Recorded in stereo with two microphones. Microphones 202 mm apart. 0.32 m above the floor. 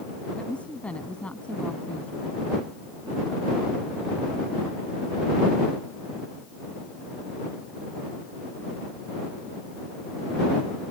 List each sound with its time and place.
0.4 s a woman speaking: 5° left (ahead or behind)